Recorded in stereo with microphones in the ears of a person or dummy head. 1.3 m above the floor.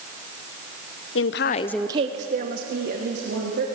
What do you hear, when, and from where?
1.1 s a woman speaking: 60° left (ahead or behind), 0.9 m; by 3.6 s 60° right (ahead or behind), 3 m